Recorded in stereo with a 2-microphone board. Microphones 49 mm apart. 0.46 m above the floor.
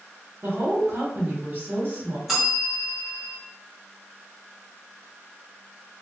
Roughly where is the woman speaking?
Right.